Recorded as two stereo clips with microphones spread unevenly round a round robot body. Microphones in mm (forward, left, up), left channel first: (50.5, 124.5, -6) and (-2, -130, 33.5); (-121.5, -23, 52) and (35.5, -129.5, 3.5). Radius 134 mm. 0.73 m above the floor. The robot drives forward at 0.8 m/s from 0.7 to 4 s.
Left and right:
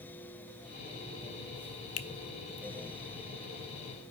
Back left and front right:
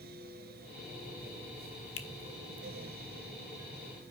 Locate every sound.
2.0 s a finger snap: 100° left, 0.9 m; by 2.1 s 105° left, 0.9 m